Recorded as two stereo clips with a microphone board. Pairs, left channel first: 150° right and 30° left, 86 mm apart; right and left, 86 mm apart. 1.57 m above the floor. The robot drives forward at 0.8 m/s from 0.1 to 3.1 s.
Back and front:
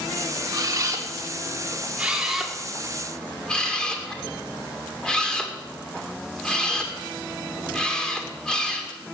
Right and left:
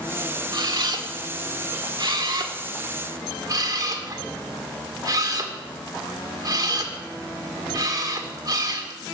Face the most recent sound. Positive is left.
turn(degrees=130)